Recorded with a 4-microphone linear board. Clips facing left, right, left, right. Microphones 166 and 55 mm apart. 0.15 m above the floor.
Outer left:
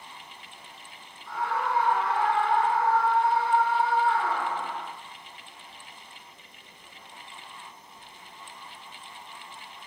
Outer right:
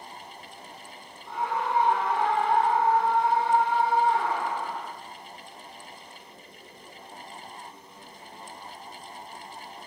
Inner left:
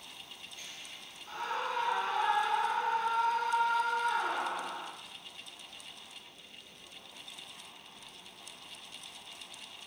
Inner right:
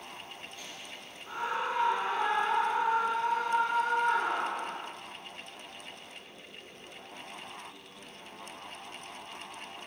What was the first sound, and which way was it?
A scream, 20° right (ahead or behind).